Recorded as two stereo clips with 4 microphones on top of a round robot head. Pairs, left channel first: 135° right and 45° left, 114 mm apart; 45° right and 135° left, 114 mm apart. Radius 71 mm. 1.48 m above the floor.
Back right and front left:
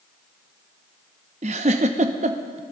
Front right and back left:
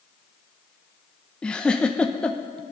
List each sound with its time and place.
1.4 s a giggle: 35° left, 0.7 m